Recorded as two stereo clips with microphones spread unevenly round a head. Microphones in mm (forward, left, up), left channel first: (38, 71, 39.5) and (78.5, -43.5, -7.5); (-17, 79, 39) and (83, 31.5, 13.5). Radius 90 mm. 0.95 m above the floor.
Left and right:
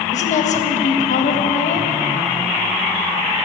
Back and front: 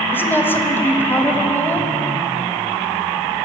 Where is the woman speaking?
75° left, 1.4 m.